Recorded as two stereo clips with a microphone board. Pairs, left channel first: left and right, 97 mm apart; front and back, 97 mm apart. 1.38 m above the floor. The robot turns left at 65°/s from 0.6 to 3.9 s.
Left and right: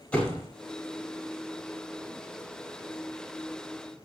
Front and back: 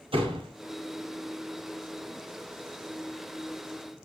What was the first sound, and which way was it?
A door slam, 165° left.